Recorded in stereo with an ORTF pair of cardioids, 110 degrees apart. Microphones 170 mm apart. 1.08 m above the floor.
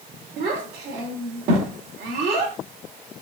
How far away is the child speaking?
About 2 m.